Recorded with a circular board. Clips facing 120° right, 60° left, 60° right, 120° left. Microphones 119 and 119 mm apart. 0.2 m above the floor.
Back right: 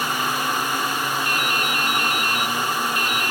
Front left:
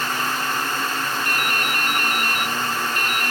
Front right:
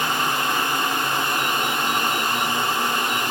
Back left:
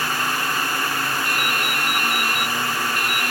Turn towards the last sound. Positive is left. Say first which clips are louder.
# even, front right 1 dB
turn(degrees=100)